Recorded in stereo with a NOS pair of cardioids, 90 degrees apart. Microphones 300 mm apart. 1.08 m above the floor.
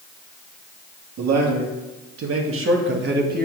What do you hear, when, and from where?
1.2 s a man speaking: 70° right, 2 m; by 3.5 s 30° right, 1.6 m